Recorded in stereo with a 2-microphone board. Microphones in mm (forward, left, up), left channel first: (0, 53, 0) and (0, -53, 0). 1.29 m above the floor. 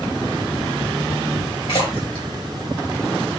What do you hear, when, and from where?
1.7 s a splash: 60° left (ahead or behind), 2 m